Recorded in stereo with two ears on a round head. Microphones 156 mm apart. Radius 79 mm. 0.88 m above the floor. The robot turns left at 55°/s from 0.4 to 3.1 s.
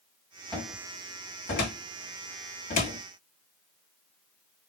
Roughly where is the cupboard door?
Centre.